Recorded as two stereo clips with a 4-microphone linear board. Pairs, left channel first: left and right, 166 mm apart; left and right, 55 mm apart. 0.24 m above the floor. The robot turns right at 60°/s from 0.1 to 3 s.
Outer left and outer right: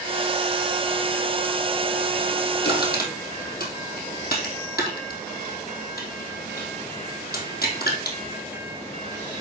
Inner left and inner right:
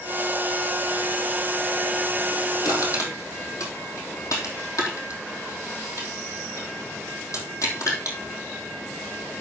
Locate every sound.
2.6 s crushing: 85° left, 3 m; by 8.2 s 65° left (ahead or behind), 3 m